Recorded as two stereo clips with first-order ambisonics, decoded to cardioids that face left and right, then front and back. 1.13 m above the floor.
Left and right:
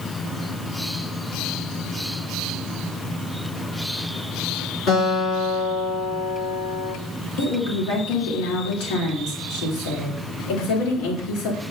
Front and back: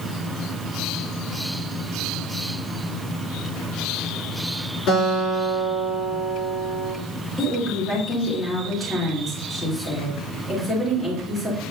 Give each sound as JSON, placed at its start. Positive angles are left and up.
{"t": 4.9, "sound": "a guitar", "azimuth_deg": 40, "distance_m": 4.0}
{"t": 7.4, "sound": "a woman speaking", "azimuth_deg": 80, "distance_m": 2.5}